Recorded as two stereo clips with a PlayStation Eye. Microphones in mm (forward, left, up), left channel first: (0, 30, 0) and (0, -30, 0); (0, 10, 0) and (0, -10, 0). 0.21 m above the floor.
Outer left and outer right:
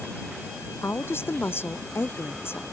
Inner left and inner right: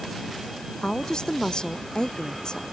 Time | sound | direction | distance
0.8 | a woman speaking | 45° left (ahead or behind) | ?